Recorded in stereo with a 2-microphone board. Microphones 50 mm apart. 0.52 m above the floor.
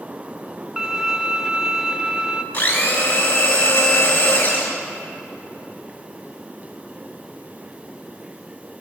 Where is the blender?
45° left (ahead or behind), 2.5 m.